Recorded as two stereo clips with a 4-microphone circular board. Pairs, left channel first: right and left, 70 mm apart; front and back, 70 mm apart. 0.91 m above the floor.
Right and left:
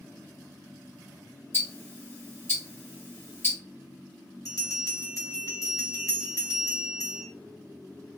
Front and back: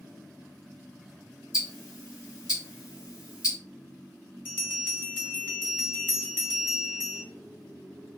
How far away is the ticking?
About 1.1 m.